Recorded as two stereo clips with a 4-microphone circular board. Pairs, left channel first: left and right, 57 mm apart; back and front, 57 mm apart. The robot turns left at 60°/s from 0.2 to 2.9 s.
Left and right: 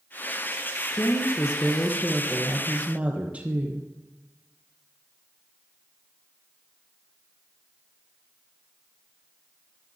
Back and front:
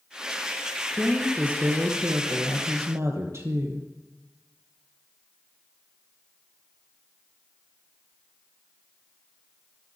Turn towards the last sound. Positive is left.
turn(degrees=-25)